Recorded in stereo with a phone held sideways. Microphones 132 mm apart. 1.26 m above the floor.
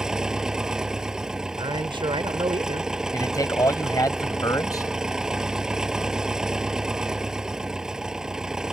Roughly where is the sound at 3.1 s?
Left.